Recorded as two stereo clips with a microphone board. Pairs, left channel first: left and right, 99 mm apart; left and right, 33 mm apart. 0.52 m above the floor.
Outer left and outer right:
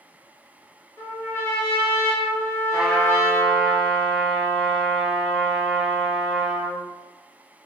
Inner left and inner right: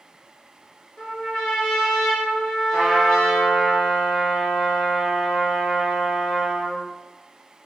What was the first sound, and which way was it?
A trumpet, 30° left (ahead or behind).